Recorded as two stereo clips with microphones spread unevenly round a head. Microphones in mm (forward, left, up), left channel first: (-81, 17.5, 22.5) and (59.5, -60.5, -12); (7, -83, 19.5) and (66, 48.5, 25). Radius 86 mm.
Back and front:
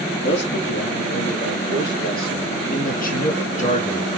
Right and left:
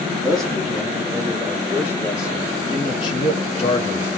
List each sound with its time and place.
0.2 s a man speaking: 155° left, 3.5 m; by 4.2 s 165° right, 3 m